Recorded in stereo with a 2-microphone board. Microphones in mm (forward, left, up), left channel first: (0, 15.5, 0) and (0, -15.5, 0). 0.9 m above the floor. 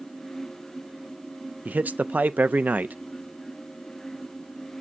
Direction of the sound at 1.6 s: 65° right (ahead or behind).